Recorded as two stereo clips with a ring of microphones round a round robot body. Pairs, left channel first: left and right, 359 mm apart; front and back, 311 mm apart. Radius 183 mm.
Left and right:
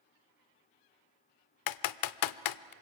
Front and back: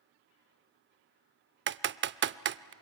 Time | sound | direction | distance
1.7 | typing on a keyboard | 125° left | 0.6 m